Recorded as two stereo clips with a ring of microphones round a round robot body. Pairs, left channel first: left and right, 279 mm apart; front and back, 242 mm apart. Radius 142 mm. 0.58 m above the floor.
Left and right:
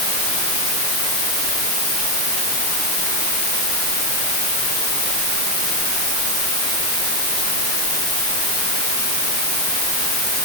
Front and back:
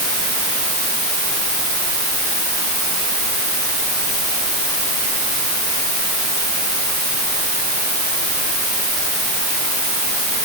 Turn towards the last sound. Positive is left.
No sound to turn to.